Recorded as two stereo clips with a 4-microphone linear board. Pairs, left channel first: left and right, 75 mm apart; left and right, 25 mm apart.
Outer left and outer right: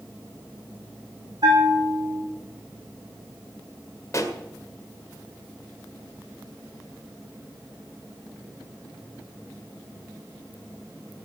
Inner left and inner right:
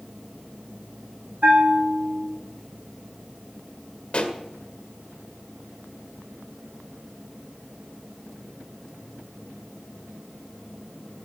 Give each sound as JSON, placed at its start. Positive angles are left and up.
{"t": 1.4, "sound": "a bell", "side_deg": -75, "distance_m": 7.5}
{"t": 4.1, "sound": "a pop", "side_deg": 45, "distance_m": 2.0}